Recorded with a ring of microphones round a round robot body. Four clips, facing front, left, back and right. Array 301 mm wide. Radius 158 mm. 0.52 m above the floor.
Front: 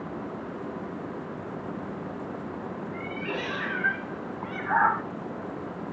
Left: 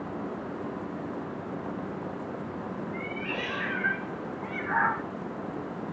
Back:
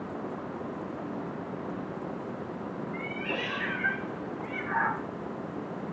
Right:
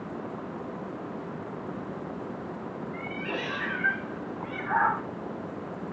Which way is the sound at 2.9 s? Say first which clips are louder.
Even, front 2 dB; 30° right.